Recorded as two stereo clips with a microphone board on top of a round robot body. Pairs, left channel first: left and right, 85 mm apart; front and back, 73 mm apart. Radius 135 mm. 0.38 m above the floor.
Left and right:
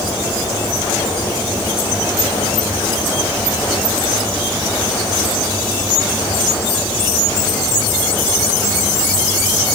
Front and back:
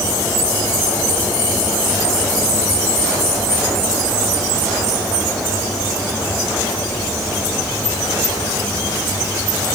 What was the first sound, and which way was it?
Only background noise.